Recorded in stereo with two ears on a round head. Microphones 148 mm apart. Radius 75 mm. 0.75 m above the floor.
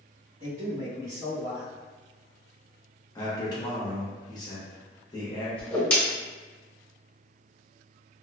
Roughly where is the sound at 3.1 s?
Left.